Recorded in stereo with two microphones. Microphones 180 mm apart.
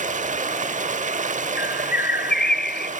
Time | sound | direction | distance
0.0 | running water | 45° right (ahead or behind) | 0.8 m
1.6 | a bird | 60° left (ahead or behind) | 0.6 m